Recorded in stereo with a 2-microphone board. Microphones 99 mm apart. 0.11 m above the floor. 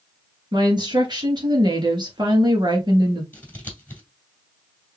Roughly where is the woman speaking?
Right.